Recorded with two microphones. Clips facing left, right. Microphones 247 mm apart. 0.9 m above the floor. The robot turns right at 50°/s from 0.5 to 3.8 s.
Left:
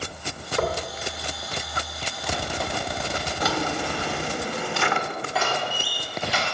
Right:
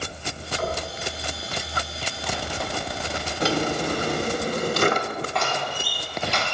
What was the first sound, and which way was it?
Knocking, 75° left (ahead or behind).